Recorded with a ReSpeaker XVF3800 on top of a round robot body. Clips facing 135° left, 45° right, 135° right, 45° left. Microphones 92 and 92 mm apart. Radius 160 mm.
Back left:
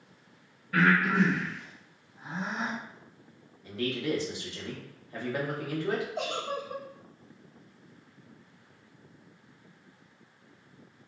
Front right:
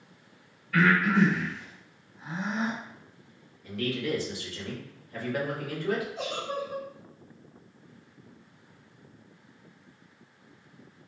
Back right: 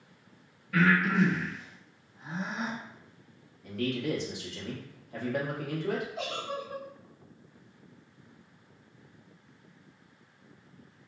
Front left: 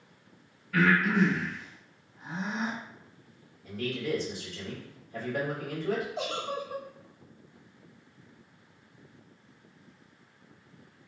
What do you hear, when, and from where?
0.7 s breathing: 165° right, 0.9 m
3.6 s a man speaking: 160° right, 1.0 m
6.2 s a giggle: 110° left, 0.6 m